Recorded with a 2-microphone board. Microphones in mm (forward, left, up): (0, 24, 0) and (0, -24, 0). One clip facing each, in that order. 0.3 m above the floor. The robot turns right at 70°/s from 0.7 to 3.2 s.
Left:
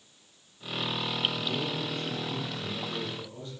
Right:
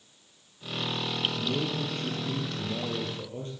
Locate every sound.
1.4 s a man speaking: 170° right, 9.5 m; by 3.5 s 40° right, 9.5 m